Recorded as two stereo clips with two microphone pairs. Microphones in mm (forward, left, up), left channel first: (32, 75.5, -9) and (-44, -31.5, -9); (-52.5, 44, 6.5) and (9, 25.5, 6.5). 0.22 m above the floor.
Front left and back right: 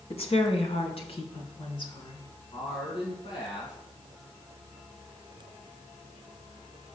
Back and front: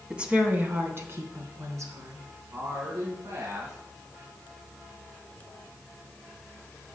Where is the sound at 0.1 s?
55° left, 2.0 m; by 2.2 s 10° left, 3.5 m.